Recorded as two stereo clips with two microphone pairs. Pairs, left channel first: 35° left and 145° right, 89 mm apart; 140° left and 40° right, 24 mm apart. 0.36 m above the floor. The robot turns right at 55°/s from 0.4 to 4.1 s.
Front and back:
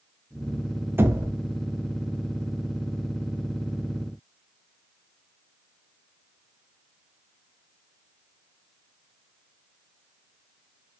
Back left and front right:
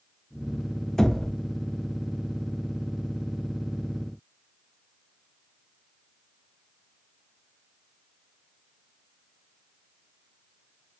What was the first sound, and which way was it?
Knocking, straight behind.